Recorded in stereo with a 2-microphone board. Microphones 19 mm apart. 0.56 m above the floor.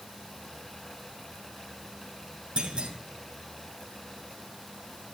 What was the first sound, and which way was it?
A clunk, 70° right (ahead or behind).